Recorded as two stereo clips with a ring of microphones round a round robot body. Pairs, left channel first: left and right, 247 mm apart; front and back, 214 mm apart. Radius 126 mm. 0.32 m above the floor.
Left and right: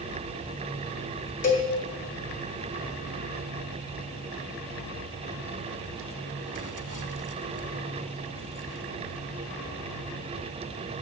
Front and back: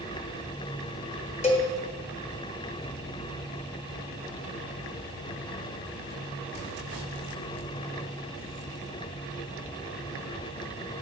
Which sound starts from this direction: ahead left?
A cowbell, at 1.4 s.